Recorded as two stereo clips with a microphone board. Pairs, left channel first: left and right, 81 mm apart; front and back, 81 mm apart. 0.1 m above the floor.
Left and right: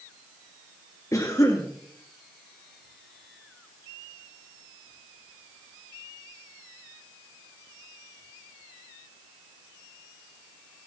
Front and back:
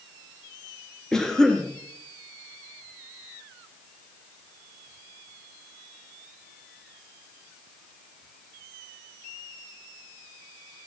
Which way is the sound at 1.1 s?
80° left.